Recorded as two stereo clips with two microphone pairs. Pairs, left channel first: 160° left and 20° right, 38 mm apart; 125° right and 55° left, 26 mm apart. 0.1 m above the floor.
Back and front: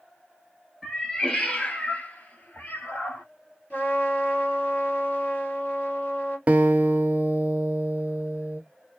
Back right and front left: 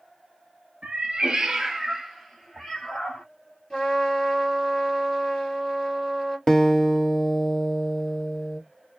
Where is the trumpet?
175° left, 2 m.